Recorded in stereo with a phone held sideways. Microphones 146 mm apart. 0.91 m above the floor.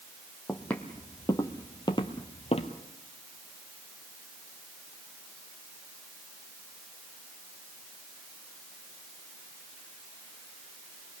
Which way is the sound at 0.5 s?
5° left (ahead or behind).